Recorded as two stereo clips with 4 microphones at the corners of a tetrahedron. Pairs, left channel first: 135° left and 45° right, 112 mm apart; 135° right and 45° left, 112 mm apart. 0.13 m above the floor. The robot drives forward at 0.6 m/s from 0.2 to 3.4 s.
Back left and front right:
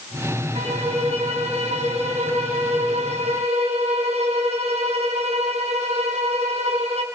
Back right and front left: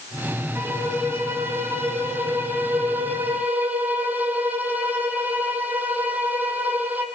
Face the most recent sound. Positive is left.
turn(degrees=-30)